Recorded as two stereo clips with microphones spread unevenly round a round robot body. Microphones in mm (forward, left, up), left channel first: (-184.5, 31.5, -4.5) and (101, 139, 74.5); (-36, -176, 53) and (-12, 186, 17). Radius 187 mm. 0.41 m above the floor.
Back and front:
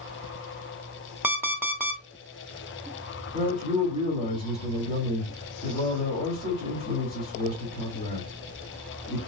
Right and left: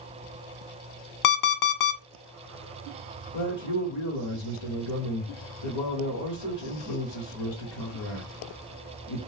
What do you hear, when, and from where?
1.2 s an alarm clock: 75° right, 0.6 m
3.3 s a man speaking: 100° right, 1.5 m